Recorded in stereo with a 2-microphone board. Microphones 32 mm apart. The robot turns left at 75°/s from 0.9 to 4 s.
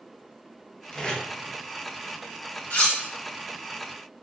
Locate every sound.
0.9 s tape being pulled: 20° left (ahead or behind), 0.5 m
2.7 s cutlery clinking: 55° left (ahead or behind), 0.8 m; by 3.0 s 40° left (ahead or behind), 0.8 m